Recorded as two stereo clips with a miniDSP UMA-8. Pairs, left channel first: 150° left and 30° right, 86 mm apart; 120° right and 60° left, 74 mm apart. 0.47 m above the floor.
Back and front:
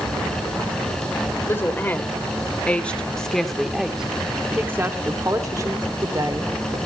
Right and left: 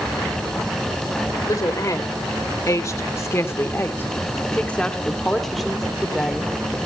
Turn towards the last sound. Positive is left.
turn(degrees=-15)